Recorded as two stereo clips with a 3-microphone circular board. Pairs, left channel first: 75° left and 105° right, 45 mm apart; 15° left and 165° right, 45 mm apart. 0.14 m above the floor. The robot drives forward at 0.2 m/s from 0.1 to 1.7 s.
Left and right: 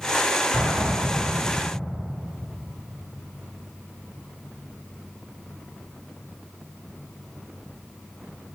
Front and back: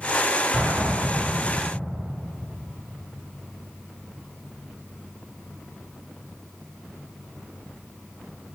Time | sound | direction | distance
0.5 | an explosion | 75° left | 1.5 m